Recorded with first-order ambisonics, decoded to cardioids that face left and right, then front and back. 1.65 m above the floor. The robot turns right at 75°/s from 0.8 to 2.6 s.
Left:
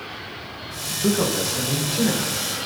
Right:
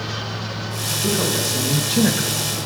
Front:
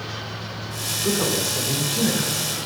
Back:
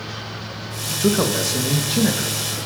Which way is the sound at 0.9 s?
155° left.